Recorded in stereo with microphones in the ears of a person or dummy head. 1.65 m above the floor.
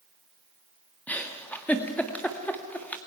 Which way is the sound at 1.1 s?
15° left (ahead or behind).